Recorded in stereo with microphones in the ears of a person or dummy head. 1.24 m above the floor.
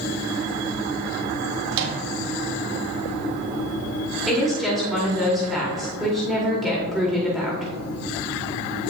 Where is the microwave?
70° right (ahead or behind), 1.4 m.